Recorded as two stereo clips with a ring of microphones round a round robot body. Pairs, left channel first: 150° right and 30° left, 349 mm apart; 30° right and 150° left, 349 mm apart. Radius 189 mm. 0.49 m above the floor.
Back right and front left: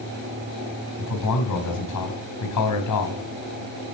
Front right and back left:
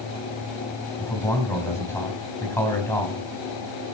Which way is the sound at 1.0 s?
115° right.